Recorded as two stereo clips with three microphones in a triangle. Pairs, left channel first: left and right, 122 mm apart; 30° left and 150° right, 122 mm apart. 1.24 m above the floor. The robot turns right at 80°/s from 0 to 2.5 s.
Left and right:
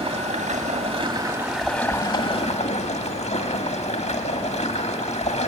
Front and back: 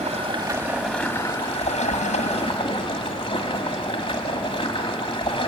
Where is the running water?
125° right, 1.8 m; by 5.5 s 75° left, 1.8 m.